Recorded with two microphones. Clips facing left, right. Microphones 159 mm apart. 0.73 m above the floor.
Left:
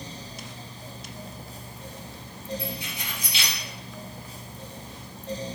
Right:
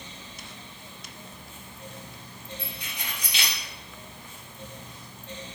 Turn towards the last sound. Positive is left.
turn(degrees=-75)  # may be behind; listen again after turning